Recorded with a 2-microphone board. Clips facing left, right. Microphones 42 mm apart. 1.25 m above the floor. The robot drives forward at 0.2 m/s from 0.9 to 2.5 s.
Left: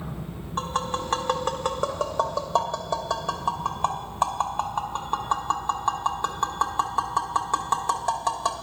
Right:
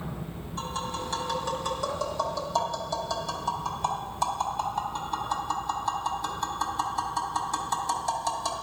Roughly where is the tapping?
Left.